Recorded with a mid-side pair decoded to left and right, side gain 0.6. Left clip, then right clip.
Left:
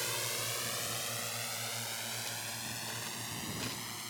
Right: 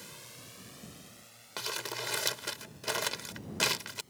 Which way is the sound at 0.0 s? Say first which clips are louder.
Left 13 dB; 60° left.